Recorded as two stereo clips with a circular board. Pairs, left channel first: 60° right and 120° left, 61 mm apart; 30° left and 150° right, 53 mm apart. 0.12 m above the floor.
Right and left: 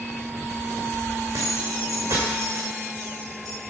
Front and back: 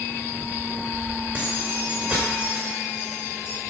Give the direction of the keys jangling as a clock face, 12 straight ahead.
7 o'clock.